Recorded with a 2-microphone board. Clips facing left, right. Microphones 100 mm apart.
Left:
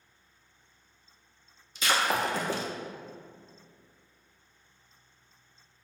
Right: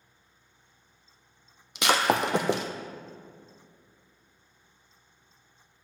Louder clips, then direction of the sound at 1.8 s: Right 4 dB; 80° right.